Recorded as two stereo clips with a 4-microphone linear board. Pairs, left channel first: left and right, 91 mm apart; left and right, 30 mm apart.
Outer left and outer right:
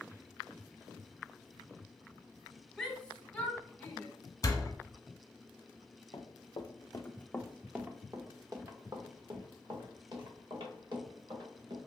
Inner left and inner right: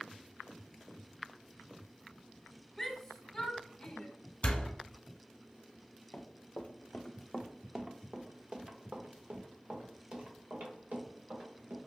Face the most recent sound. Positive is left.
turn(degrees=-65)  # may be behind; listen again after turning